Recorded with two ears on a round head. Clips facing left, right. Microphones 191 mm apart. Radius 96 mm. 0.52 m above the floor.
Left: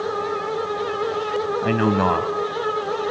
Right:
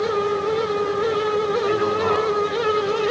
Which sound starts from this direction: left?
A man speaking, at 1.6 s.